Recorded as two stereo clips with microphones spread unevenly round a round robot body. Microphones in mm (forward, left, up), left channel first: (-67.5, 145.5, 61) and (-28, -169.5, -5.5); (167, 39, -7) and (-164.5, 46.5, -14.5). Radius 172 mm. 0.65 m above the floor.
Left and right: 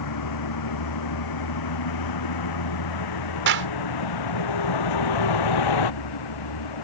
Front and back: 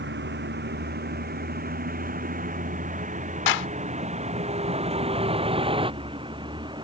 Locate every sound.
0.0 s a vehicle: 120° left; by 6.8 s 100° left
3.5 s a clap: 35° right